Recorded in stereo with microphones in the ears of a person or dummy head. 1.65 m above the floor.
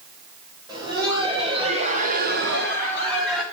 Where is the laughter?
25° right (ahead or behind), 2 m; by 3.4 s 15° right (ahead or behind), 1.1 m.